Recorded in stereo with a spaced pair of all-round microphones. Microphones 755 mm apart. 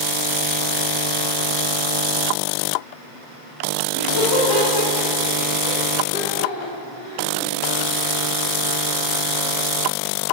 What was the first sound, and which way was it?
Laughter, 35° left (ahead or behind).